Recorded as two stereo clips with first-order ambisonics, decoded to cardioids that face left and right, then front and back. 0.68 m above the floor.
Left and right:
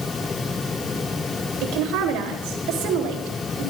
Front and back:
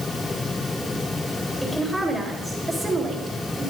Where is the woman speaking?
90° right, 3.5 m; by 3.7 s 110° right, 4 m.